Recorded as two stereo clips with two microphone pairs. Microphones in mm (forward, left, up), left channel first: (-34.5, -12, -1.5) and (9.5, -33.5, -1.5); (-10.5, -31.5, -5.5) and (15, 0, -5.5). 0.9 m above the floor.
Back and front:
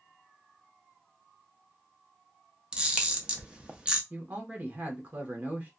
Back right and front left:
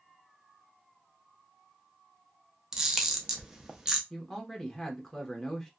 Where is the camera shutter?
10° right, 0.5 m.